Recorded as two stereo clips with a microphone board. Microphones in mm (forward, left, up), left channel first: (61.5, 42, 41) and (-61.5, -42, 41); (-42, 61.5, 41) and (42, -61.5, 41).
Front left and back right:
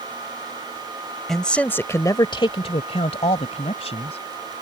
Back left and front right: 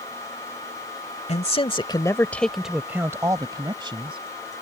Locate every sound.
1.3 s a man speaking: 120° left; by 4.6 s 10° right